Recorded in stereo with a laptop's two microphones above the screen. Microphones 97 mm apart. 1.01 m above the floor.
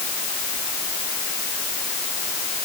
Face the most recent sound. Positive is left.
No sound to turn to.